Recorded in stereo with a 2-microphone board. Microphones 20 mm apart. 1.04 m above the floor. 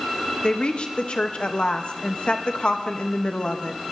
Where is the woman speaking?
65° left (ahead or behind), 1.3 m.